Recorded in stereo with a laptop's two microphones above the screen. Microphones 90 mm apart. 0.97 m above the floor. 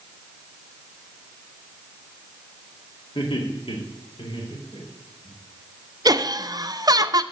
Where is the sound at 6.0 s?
45° right (ahead or behind), 0.6 m.